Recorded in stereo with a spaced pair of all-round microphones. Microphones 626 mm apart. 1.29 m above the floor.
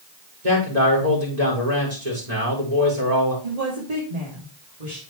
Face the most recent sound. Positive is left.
turn(degrees=-85)